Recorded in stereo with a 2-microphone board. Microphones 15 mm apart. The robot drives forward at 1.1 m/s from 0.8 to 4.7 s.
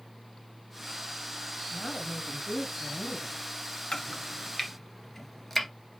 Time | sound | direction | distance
1.7 | a woman speaking | 15° left (ahead or behind) | 1.3 m
3.9 | chopping | 30° left (ahead or behind) | 0.7 m